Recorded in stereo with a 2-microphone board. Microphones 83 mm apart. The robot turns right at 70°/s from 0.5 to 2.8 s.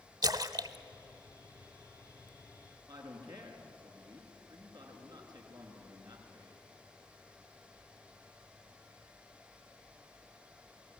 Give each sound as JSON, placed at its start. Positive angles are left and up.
{"t": 0.2, "sound": "a splash", "side_deg": -50, "distance_m": 0.9}
{"t": 2.9, "sound": "a man speaking", "side_deg": -60, "distance_m": 4.5}